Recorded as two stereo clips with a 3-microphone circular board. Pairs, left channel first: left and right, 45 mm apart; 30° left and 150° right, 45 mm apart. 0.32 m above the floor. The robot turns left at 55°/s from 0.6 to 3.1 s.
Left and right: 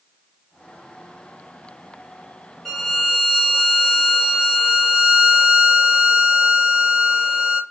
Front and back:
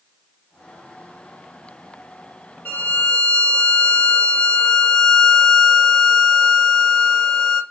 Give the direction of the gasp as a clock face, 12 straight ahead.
I don't hear a gasp.